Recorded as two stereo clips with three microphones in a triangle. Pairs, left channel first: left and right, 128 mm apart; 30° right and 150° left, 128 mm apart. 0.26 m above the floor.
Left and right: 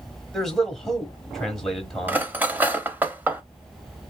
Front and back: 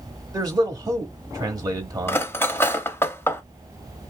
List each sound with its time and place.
0.3 s a man speaking: 175° left, 1.0 m
2.1 s cutlery clinking: 45° right, 0.6 m